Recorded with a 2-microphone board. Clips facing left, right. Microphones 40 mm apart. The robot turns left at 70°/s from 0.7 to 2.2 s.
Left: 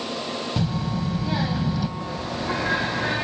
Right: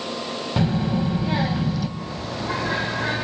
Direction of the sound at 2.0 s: 65° left (ahead or behind).